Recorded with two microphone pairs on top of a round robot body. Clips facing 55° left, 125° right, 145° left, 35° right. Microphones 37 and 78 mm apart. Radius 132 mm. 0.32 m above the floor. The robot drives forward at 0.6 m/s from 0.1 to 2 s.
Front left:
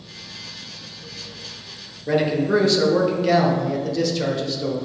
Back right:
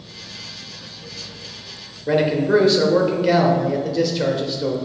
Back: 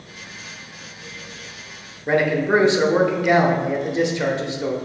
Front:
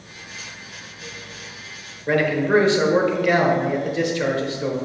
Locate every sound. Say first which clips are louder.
2.1 s a man speaking: back right 2 dB, back 1 dB; 170° left, 0.9 m